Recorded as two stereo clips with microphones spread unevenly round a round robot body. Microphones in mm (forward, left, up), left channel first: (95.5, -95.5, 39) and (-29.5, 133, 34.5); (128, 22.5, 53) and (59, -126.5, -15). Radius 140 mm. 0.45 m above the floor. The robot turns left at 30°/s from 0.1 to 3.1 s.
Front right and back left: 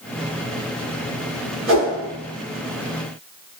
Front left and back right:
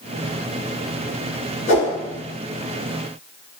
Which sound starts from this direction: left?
A whoosh, at 1.7 s.